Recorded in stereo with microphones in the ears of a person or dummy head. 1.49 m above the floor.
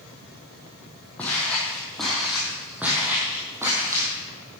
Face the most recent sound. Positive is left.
turn(degrees=-15)  # may be behind; listen again after turning